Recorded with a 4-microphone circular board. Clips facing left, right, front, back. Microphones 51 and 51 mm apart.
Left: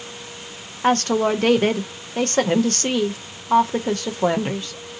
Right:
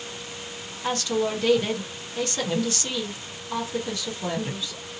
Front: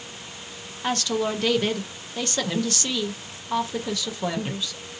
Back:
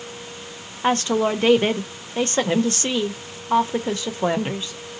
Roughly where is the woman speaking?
Behind left.